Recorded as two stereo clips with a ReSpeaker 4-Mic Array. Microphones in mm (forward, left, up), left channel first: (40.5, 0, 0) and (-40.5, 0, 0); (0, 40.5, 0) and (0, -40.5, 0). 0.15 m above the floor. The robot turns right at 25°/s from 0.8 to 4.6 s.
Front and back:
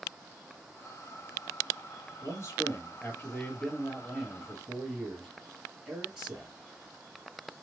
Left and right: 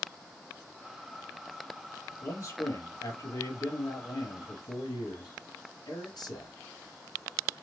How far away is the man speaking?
About 2.5 m.